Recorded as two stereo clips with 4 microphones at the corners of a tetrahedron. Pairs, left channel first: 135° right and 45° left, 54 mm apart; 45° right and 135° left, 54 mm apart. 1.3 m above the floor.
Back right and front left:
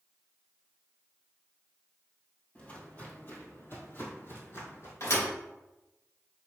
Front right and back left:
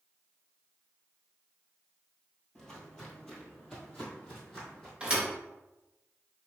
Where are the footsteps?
115° right, 1.5 m; by 4.9 s 130° right, 2.5 m.